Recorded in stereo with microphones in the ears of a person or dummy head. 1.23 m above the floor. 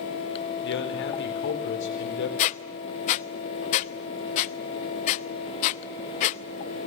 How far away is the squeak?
About 0.7 m.